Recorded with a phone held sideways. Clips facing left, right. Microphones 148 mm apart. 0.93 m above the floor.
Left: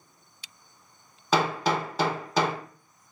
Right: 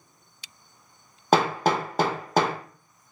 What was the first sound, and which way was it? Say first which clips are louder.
Hammering: right 3 dB; 50° right (ahead or behind).